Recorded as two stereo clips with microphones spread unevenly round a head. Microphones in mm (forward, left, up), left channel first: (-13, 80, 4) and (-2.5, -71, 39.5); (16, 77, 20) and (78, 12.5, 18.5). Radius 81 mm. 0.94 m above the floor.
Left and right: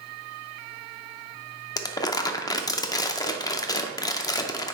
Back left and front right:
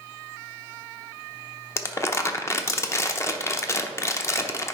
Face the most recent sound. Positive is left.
turn(degrees=100)